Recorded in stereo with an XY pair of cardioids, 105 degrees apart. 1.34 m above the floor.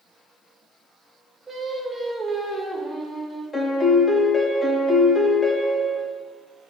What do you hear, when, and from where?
1.5 s singing: 35° right, 0.6 m
3.5 s a piano: 20° left, 0.5 m